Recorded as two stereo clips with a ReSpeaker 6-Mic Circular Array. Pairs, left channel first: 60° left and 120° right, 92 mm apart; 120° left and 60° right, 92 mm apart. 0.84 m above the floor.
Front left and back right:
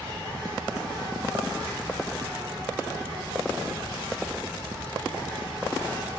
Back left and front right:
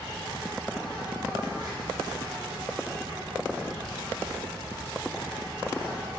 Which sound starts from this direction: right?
An insect, at 0.0 s.